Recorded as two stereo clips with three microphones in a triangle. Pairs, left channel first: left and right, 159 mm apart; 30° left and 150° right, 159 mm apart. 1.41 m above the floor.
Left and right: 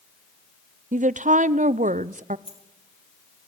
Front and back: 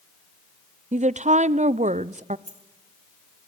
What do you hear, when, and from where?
0.9 s a woman speaking: 115° right, 0.5 m
2.5 s a dropped coin: 40° left, 3 m